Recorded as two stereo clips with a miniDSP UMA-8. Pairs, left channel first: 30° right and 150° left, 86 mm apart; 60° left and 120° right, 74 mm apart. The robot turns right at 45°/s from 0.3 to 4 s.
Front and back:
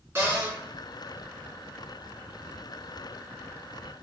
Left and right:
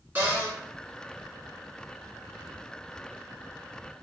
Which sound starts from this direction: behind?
A cupboard door, at 0.1 s.